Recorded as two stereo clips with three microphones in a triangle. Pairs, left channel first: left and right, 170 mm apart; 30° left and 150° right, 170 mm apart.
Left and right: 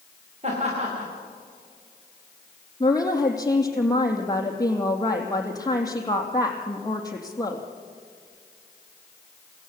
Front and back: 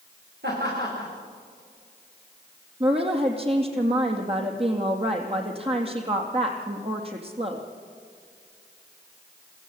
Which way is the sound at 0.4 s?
140° right.